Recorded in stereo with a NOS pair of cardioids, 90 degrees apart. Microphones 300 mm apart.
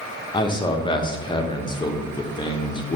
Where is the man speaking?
15° left, 0.7 m.